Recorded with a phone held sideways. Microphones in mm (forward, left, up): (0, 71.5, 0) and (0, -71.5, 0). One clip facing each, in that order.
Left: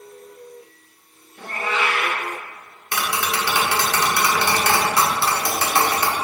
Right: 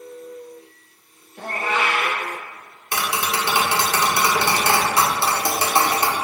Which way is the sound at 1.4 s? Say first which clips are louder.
Right 1 dB; 55° right (ahead or behind).